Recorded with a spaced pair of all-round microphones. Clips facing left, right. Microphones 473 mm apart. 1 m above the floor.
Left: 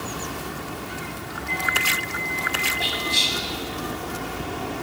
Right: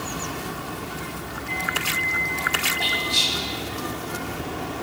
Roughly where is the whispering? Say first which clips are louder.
Even; centre.